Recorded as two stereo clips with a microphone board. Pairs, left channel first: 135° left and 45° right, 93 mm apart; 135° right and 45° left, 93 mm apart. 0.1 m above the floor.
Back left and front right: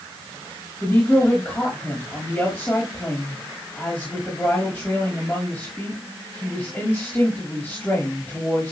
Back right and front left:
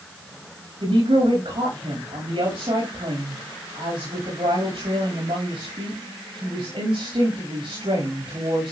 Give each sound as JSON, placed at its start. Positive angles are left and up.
{"t": 0.8, "sound": "a woman speaking", "azimuth_deg": 65, "distance_m": 8.0}